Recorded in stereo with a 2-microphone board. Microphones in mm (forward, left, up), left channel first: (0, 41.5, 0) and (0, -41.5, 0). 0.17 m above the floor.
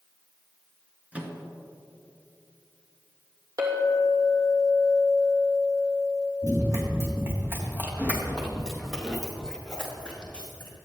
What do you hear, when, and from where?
1.1 s a microwave: 15° right (ahead or behind), 2 m
3.6 s a clink: 50° right (ahead or behind), 3 m
6.4 s running footsteps: 45° right (ahead or behind), 4 m; by 10.7 s 20° left (ahead or behind), 5 m